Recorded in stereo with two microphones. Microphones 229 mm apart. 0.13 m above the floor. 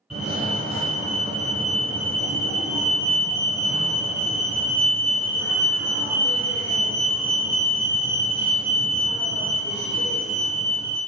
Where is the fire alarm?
Centre (ahead or behind), 2.0 m.